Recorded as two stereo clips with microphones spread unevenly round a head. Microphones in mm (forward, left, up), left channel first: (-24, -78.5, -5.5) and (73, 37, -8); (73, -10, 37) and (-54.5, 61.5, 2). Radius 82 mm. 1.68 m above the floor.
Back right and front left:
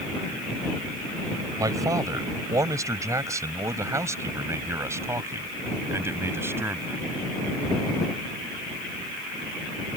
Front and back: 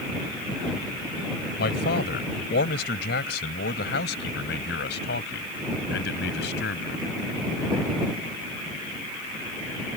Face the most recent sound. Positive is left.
turn(degrees=-25)